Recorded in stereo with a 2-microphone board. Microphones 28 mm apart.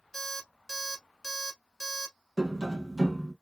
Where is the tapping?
25° right (ahead or behind), 0.8 m.